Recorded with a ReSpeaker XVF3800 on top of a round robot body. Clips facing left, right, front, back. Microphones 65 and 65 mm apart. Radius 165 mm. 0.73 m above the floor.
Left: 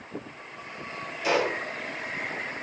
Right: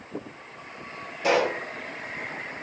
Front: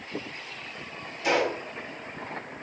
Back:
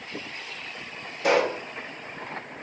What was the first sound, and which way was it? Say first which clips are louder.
A pop: right 3 dB, back 3 dB; 140° right.